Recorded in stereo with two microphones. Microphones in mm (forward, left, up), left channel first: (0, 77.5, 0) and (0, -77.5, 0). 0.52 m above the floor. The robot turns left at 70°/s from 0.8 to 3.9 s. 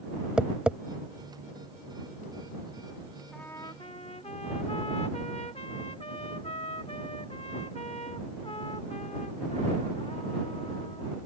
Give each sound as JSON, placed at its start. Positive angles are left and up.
{"t": 0.4, "sound": "tapping", "side_deg": -5}
{"t": 3.3, "sound": "a trumpet", "azimuth_deg": 175}